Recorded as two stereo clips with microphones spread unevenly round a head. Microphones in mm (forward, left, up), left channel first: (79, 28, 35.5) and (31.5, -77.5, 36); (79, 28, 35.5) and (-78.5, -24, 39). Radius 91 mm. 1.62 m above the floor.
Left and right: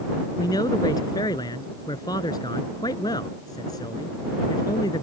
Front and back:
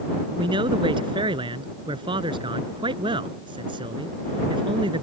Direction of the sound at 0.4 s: 135° left.